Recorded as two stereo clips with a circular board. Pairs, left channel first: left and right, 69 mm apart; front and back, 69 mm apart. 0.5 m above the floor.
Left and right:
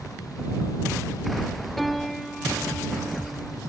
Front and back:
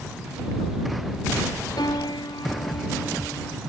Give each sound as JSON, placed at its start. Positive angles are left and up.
{"t": 1.8, "sound": "a piano", "azimuth_deg": 0}